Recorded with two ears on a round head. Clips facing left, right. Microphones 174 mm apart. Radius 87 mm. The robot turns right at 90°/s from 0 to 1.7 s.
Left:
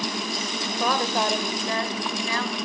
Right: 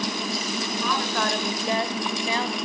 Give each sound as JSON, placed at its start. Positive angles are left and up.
{"t": 0.8, "sound": "a woman speaking", "azimuth_deg": 120, "distance_m": 1.8}